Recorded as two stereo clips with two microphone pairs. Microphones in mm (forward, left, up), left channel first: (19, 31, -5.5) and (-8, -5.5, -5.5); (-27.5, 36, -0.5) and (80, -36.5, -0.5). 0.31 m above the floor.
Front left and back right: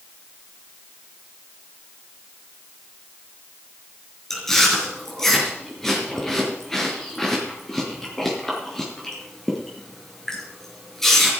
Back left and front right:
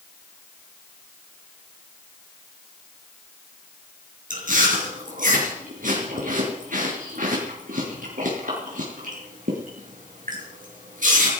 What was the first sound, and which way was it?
Chewing, 25° right.